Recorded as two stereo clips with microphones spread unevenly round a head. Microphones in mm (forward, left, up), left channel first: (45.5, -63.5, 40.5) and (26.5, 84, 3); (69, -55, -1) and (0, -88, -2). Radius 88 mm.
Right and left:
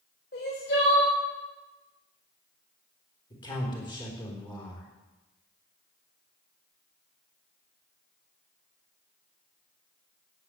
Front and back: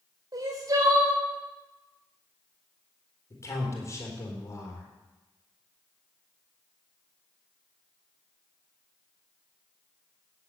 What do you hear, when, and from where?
0.3 s crying: 120° right, 3.5 m
3.3 s a man speaking: 20° right, 4 m